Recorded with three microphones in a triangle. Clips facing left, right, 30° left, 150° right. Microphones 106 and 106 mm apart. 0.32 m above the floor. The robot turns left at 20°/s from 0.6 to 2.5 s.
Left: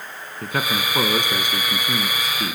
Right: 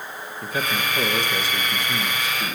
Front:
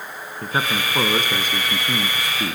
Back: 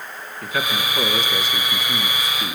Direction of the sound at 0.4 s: 80° left.